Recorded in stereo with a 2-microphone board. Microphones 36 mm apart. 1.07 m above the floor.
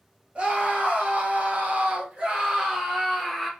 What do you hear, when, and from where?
0.3 s a scream: 35° right (ahead or behind), 1.1 m; by 3.5 s 10° right (ahead or behind), 1.1 m